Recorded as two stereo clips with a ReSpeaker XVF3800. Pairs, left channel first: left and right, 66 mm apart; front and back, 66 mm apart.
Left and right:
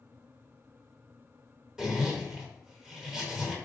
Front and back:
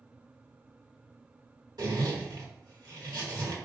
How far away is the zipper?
About 1.3 m.